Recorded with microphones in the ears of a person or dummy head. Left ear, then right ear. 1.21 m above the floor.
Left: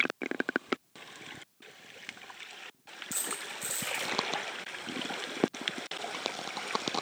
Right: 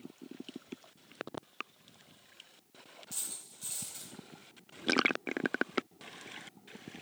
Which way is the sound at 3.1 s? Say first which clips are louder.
Left 7 dB; 15° left (ahead or behind).